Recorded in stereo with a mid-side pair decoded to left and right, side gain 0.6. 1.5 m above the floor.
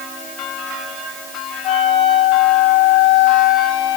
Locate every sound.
1.6 s a flute: 65° left, 5.5 m